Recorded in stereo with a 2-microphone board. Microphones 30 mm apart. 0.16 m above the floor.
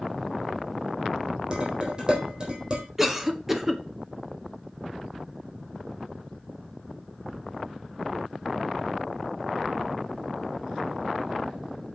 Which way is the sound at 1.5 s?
35° right (ahead or behind).